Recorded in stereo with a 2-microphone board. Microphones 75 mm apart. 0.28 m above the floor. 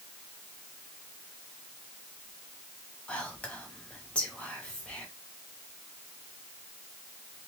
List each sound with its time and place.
3.1 s whispering: 15° left (ahead or behind), 1.0 m